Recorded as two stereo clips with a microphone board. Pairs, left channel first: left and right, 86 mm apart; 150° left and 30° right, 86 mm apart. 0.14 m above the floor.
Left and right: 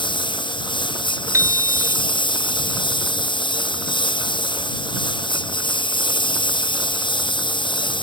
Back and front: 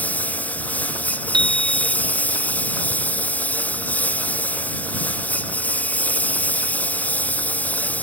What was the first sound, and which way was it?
A lawn mower, 80° left.